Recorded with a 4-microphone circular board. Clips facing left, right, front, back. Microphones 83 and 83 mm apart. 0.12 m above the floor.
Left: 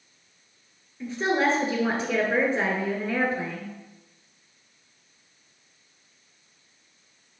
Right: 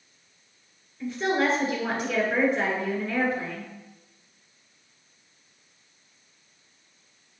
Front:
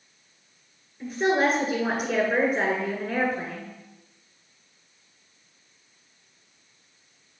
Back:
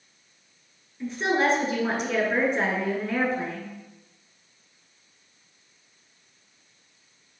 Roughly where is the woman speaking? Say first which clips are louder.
Left 1 dB, front 1 dB; left.